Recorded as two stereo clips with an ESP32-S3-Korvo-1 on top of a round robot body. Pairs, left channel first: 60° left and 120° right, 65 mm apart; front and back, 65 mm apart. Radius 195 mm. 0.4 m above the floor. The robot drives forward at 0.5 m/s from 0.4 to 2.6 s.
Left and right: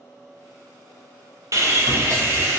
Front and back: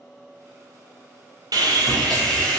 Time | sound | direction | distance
1.5 | sawing | 165° right | 0.7 m